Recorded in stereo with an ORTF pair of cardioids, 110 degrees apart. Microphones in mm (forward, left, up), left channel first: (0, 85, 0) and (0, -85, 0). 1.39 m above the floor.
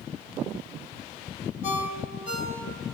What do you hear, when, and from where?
1.6 s a ringtone: 50° left, 3.5 m